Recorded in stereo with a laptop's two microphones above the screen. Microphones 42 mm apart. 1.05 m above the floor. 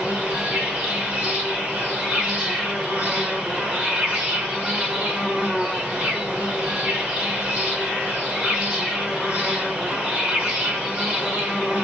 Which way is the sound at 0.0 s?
30° right (ahead or behind).